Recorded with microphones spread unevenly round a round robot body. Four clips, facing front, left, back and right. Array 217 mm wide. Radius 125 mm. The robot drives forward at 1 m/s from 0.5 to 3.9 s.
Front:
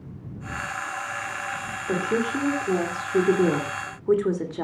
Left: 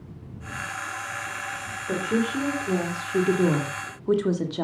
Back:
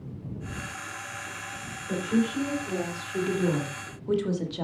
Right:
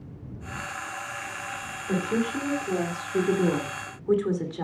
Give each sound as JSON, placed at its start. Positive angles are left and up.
{"t": 1.9, "sound": "a woman speaking", "azimuth_deg": 20, "distance_m": 3.0}